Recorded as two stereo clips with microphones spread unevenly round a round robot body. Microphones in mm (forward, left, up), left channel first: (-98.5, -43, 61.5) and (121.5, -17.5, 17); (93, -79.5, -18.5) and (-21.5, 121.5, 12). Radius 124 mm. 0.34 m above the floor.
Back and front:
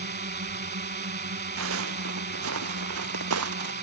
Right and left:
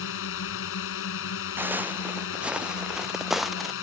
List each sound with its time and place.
0.0 s a drone: 40° right
1.6 s footsteps: 40° left; by 3.7 s 30° left